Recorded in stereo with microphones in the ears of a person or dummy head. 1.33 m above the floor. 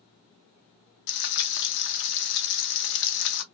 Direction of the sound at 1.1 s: 50° left (ahead or behind).